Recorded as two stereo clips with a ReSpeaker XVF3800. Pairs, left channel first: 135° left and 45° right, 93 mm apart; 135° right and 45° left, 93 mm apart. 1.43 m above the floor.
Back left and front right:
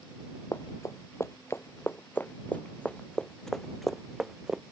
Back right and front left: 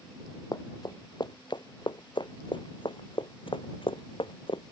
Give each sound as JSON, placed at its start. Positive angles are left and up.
{"t": 0.5, "sound": "running footsteps", "azimuth_deg": -175}